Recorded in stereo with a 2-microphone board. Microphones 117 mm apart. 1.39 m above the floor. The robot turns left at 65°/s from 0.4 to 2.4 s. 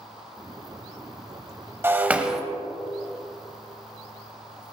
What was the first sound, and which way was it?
Breaking glass, 20° right (ahead or behind).